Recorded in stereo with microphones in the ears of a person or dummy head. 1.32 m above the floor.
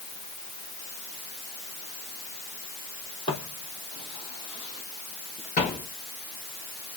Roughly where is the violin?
I don't hear a violin.